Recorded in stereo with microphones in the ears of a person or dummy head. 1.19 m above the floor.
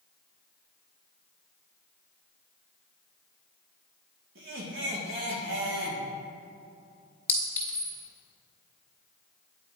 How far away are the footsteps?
No footsteps in this recording.